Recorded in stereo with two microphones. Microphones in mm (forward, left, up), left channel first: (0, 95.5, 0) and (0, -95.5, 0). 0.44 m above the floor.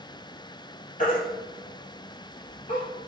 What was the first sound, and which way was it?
A baby crying, 45° left (ahead or behind).